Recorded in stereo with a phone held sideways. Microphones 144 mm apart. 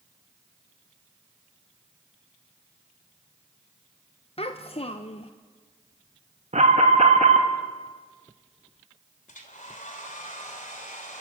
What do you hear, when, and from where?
4.4 s a child speaking: 45° left (ahead or behind), 0.7 m
6.5 s an alarm: 60° right (ahead or behind), 1.9 m
9.3 s a hair dryer: 65° left (ahead or behind), 2.5 m